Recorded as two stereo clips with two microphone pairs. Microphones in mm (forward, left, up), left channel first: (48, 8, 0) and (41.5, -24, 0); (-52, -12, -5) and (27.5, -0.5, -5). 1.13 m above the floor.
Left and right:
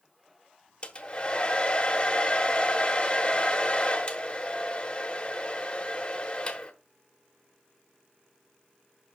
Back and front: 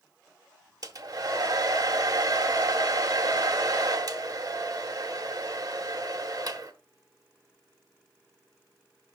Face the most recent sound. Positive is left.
turn(degrees=25)